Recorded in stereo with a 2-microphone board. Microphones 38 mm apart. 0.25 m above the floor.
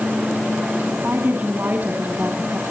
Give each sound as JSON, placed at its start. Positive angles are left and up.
{"t": 0.9, "sound": "a woman speaking", "side_deg": -55, "distance_m": 2.5}